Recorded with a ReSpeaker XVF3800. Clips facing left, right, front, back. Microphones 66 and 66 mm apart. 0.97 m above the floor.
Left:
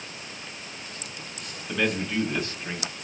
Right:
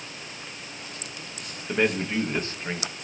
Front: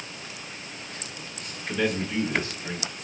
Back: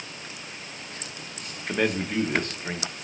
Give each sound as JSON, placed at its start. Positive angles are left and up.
{"t": 1.7, "sound": "a man speaking", "azimuth_deg": -145, "distance_m": 0.8}